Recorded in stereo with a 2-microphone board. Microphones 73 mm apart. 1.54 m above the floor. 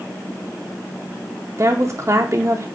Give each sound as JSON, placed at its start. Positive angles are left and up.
{"t": 1.6, "sound": "a woman speaking", "side_deg": -40, "distance_m": 0.6}